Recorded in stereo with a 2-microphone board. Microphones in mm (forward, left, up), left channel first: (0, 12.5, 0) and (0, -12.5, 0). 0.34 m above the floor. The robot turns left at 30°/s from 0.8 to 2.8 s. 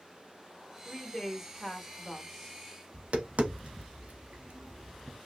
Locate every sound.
0.8 s a woman speaking: 10° right (ahead or behind), 0.9 m; by 2.6 s 10° left (ahead or behind), 0.9 m
2.9 s tapping: 80° right, 0.8 m